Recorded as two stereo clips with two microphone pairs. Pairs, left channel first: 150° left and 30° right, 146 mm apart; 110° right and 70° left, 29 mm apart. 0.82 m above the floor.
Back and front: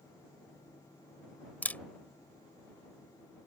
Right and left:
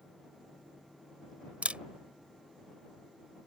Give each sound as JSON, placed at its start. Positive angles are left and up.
{"t": 1.6, "sound": "a camera shutter", "azimuth_deg": 75}